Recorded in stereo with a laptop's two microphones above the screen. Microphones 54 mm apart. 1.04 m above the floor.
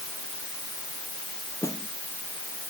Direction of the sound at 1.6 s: 80° left.